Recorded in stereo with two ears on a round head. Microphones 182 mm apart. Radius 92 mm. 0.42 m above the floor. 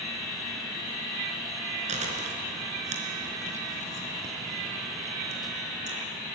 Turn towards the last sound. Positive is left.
turn(degrees=-35)  # may be behind; listen again after turning